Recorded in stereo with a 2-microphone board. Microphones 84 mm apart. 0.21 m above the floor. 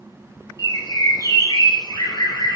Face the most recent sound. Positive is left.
turn(degrees=50)  # may be behind; listen again after turning